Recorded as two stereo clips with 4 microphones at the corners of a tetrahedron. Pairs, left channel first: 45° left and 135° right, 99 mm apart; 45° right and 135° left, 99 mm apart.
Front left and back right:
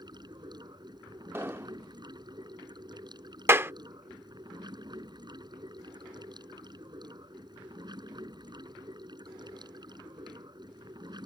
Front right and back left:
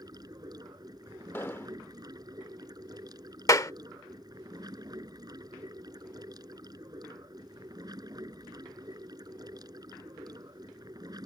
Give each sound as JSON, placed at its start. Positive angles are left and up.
{"t": 0.0, "sound": "running water", "azimuth_deg": 180}
{"t": 1.3, "sound": "an explosion", "azimuth_deg": -85}
{"t": 3.5, "sound": "a clap", "azimuth_deg": -80}